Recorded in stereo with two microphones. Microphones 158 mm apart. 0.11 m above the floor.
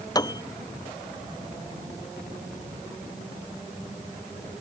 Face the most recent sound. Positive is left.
turn(degrees=25)  # may be behind; listen again after turning